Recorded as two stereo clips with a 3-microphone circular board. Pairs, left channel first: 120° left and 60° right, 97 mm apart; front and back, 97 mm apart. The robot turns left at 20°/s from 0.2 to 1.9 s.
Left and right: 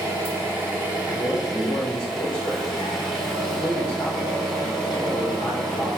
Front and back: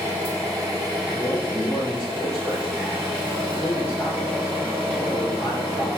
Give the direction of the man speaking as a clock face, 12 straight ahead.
9 o'clock.